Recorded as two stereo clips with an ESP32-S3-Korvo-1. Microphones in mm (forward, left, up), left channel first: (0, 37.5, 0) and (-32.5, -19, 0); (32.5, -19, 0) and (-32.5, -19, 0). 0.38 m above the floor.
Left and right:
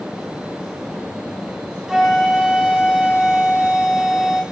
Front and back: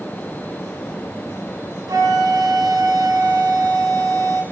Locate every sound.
1.9 s a flute: 160° left, 3.5 m